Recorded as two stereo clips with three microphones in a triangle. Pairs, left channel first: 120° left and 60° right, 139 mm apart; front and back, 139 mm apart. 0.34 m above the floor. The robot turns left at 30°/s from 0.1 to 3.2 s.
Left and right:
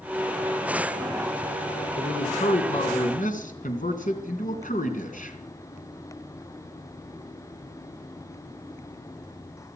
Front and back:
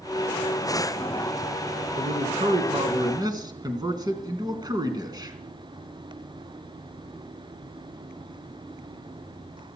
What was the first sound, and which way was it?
A man speaking, 160° left.